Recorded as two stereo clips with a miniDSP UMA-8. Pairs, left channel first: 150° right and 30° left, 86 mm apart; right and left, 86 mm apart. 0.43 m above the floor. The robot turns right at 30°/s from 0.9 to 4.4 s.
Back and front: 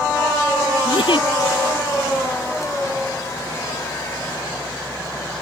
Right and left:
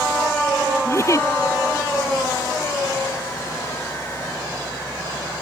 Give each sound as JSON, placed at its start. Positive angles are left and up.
{"t": 0.8, "sound": "a giggle", "azimuth_deg": -145}